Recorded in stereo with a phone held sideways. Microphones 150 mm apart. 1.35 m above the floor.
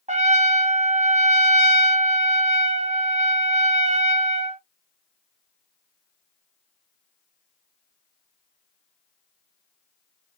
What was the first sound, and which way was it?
A trumpet, 50° right (ahead or behind).